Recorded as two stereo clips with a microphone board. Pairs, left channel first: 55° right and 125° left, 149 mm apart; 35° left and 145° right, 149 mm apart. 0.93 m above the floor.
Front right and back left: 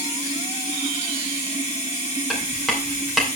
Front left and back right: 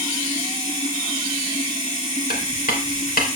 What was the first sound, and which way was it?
Running water, 75° left.